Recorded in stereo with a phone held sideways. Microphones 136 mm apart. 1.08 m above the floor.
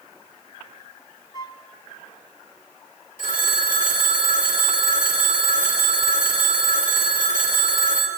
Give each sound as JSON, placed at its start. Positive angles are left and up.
{"t": 1.3, "sound": "a flute", "side_deg": 30, "distance_m": 1.2}
{"t": 3.2, "sound": "a phone ringing", "side_deg": 85, "distance_m": 3.0}